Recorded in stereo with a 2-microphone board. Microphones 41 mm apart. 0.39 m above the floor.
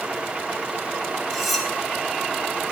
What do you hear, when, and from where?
1.3 s cutlery clinking: centre (ahead or behind), 1.8 m